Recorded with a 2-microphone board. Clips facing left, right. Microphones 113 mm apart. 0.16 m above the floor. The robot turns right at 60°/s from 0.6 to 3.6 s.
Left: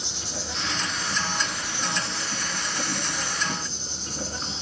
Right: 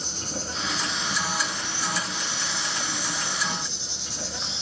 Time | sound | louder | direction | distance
0.0 | an insect | right 2 dB | 50° right | 1.6 m